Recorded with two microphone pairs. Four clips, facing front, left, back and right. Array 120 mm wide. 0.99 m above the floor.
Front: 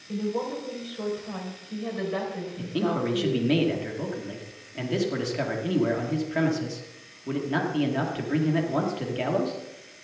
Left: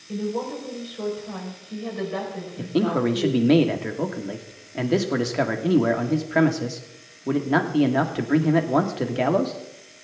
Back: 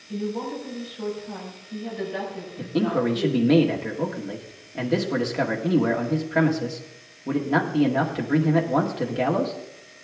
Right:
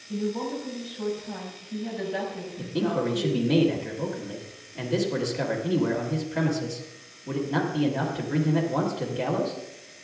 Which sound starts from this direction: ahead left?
A woman speaking, at 0.1 s.